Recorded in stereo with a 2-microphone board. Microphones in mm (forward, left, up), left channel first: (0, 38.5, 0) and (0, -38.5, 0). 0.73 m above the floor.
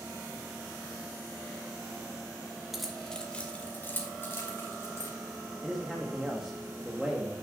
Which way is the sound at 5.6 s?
5° right (ahead or behind).